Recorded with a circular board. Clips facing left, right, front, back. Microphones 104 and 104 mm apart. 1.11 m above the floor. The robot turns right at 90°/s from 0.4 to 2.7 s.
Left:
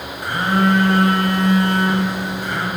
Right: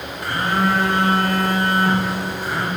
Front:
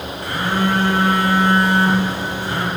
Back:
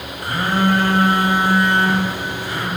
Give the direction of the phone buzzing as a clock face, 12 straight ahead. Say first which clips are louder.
Left 3 dB, back 2 dB; 7 o'clock.